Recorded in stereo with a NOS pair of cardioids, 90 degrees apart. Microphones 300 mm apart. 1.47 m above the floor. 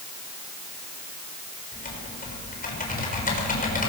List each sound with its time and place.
1.7 s typing on a keyboard: 30° left, 6.5 m